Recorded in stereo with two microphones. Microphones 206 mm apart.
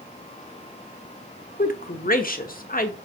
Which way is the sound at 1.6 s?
45° left (ahead or behind).